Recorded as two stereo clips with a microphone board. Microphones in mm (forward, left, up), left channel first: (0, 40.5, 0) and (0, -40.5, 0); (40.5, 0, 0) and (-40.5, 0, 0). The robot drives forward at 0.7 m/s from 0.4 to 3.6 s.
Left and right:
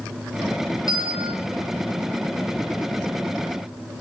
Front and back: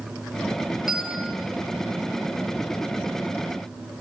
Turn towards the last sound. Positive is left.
turn(degrees=-120)